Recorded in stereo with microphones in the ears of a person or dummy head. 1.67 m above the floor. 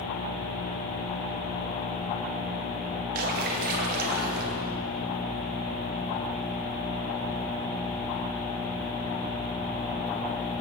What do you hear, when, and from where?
3.1 s a splash: 55° right (ahead or behind), 2.0 m